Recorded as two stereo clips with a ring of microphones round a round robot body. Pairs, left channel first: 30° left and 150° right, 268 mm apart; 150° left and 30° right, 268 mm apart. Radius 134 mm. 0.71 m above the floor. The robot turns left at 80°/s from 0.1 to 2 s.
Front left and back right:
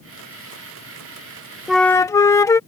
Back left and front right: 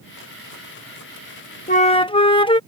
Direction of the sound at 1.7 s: 125° left.